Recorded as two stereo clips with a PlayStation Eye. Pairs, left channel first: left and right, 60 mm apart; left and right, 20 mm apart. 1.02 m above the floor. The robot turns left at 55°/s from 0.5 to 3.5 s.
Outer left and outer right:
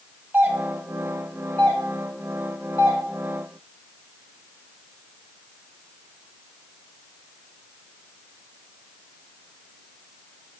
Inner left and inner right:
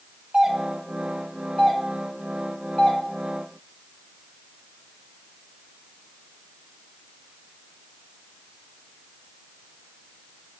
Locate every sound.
0.3 s a doorbell: 30° right (ahead or behind), 2.5 m; by 3.0 s 65° left (ahead or behind), 2.5 m